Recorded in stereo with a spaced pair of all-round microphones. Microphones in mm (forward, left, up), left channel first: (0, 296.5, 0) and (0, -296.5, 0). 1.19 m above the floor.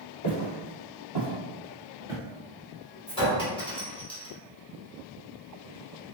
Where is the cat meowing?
No cat meowing in this recording.